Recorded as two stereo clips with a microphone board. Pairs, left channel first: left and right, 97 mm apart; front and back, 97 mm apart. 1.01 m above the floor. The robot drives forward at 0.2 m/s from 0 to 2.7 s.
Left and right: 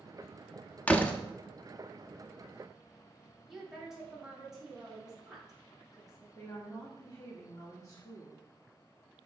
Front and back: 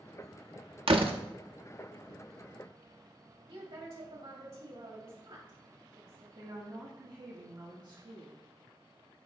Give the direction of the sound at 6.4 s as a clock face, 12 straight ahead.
7 o'clock.